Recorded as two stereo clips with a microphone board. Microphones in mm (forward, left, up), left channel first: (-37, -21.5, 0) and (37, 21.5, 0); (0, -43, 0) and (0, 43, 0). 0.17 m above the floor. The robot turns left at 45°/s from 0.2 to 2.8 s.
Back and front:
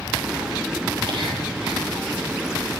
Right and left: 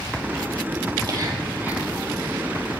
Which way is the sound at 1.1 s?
50° left.